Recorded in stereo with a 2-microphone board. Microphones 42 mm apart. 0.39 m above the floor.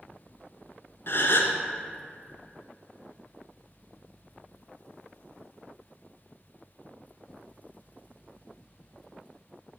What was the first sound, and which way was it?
A gasp, 65° left (ahead or behind).